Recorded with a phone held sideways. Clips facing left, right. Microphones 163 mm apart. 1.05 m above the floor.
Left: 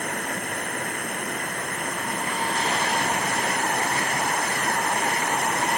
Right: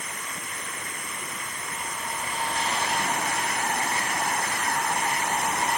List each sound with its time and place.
0.0 s running water: 60° left (ahead or behind)